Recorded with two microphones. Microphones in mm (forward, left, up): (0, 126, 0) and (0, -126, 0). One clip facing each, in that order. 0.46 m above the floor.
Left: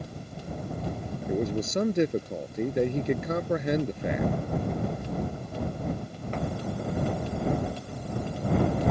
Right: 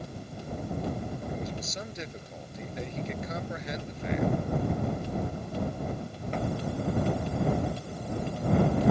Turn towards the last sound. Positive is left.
turn(degrees=60)  # may be behind; listen again after turning